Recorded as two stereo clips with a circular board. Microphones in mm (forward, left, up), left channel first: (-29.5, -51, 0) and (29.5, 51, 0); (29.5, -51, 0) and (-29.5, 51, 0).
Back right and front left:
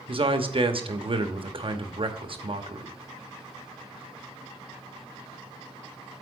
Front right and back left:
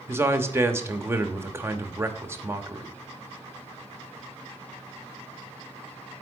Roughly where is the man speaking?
Ahead left.